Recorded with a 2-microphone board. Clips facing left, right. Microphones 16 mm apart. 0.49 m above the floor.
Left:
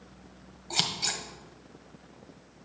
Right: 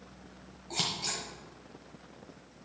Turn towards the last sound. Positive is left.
turn(degrees=40)  # may be behind; listen again after turning